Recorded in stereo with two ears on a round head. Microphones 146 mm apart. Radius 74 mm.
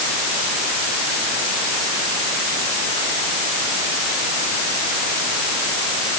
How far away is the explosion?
I don't hear an explosion.